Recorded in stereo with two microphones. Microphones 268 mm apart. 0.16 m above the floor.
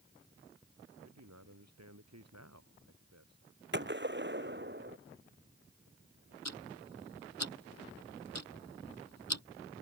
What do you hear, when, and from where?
1.0 s a man speaking: 75° right (ahead or behind); by 4.7 s 65° right (ahead or behind)
3.7 s a gunshot: 40° right (ahead or behind)
6.5 s ticking: 75° left (ahead or behind)